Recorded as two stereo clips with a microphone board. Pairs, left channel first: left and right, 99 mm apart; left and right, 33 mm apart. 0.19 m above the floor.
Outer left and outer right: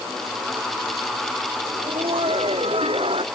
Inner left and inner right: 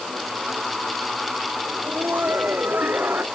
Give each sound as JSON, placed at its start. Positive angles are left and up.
{"t": 1.6, "sound": "laughter", "side_deg": -65}